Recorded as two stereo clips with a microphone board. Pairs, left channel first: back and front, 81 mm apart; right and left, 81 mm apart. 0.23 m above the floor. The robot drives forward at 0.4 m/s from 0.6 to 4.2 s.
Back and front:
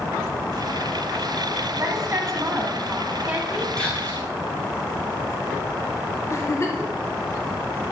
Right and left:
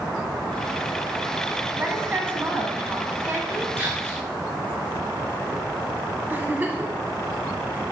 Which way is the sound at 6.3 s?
150° left.